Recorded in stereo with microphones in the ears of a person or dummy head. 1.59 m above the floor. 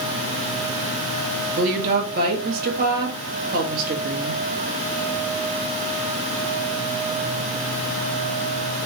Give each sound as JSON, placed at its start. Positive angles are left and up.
{"t": 1.6, "sound": "a woman speaking", "side_deg": -50, "distance_m": 1.3}